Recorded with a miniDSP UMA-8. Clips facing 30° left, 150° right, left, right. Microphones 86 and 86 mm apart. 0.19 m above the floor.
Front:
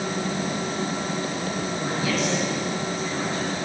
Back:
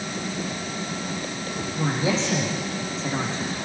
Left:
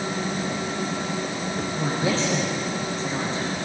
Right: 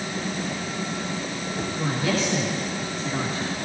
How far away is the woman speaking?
About 8 m.